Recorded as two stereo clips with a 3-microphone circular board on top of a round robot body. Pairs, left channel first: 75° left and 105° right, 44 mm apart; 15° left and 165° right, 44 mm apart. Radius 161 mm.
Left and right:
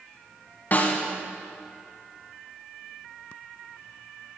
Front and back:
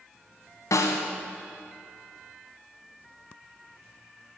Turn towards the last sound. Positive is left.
turn(degrees=20)